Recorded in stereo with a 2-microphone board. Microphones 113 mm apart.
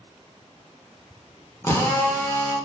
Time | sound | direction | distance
1.6 | a drill | 20° left (ahead or behind) | 0.6 m